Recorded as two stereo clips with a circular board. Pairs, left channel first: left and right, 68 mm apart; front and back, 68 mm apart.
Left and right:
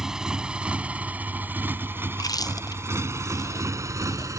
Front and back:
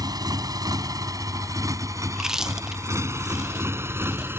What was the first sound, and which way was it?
A motorcycle, 170° right.